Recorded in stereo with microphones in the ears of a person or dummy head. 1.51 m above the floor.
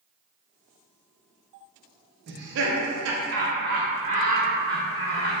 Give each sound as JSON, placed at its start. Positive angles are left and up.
{"t": 2.3, "sound": "laughter", "side_deg": -60, "distance_m": 0.7}